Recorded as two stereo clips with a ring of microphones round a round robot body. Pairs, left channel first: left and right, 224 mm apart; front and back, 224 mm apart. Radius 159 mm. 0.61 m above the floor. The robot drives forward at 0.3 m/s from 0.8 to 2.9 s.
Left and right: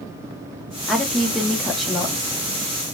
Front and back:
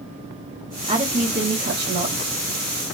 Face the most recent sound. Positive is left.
turn(degrees=180)